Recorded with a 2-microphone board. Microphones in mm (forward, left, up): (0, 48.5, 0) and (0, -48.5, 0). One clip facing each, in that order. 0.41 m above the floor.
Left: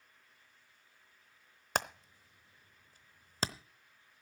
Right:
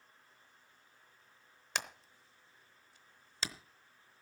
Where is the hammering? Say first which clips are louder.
Left 6 dB; 45° left (ahead or behind), 0.8 m.